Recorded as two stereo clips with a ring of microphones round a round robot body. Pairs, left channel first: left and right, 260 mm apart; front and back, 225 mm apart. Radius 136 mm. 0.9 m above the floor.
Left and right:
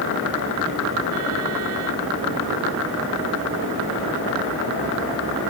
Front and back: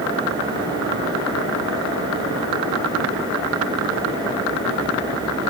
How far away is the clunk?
I don't hear a clunk.